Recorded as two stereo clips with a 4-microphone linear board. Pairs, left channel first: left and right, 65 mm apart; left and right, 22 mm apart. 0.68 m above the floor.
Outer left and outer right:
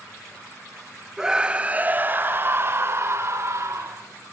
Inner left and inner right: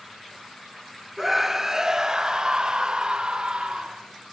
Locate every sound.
1.2 s a scream: 10° right (ahead or behind), 0.9 m; by 4.0 s 50° right (ahead or behind), 2 m